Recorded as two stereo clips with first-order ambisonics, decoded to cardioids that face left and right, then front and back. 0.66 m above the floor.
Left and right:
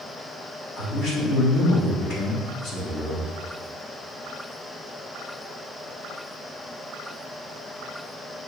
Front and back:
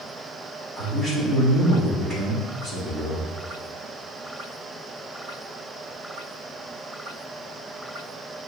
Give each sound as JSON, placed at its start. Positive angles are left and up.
{"t": 0.8, "sound": "a man speaking", "azimuth_deg": 85, "distance_m": 1.2}